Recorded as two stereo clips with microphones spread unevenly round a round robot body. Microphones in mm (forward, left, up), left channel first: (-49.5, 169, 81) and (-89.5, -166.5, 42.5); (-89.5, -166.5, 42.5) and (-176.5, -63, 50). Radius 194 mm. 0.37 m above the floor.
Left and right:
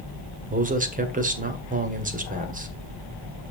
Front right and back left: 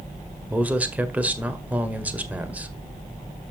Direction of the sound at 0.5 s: 150° right.